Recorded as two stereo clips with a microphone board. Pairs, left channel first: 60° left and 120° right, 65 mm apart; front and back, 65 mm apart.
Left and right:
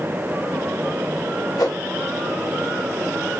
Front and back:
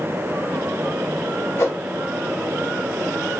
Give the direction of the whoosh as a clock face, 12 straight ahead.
10 o'clock.